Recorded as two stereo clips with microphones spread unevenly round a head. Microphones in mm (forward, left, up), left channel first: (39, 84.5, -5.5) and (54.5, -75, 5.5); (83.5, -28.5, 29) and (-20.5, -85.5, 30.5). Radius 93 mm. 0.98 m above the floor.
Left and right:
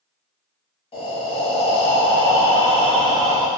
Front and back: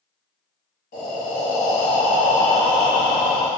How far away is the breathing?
About 0.8 m.